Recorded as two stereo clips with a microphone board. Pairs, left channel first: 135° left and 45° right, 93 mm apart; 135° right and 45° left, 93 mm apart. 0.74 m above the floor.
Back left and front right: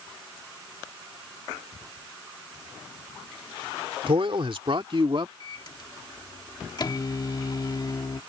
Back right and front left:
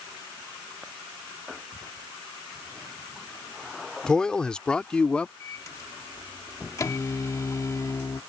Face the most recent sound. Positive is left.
turn(degrees=175)